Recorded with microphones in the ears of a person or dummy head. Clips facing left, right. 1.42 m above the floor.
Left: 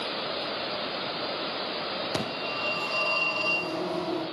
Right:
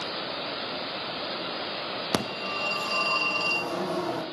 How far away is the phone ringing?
About 1.2 m.